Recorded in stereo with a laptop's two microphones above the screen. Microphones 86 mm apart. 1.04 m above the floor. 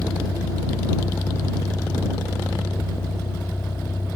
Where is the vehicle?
50° left (ahead or behind); by 4.2 s 25° left (ahead or behind).